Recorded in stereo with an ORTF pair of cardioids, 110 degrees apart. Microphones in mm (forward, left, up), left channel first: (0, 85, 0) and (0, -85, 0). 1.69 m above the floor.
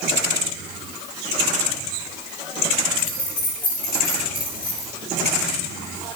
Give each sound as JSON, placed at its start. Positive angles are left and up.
{"t": 3.0, "sound": "keys jangling", "azimuth_deg": 55, "distance_m": 4.0}